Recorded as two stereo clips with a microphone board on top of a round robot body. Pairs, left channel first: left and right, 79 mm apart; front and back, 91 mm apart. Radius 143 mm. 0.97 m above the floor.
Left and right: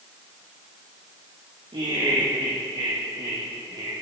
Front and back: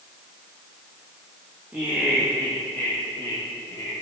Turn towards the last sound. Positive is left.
turn(degrees=-55)